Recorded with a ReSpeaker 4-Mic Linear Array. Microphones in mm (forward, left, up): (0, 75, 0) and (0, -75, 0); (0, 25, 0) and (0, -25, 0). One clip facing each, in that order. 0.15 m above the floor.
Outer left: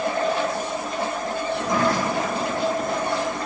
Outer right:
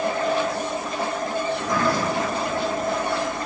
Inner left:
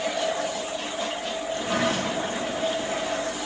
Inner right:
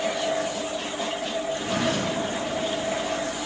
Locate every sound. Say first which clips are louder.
1.5 s a sliding door: outer left 3 dB, inner left 2 dB; 25° left (ahead or behind), 4 m